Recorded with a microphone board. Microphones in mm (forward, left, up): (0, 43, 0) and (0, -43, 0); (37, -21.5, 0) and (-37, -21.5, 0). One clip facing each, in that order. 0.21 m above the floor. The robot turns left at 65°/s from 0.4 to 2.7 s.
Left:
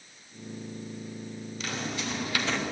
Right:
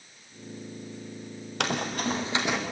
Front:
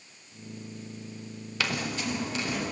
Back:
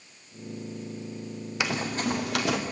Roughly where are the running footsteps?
Right.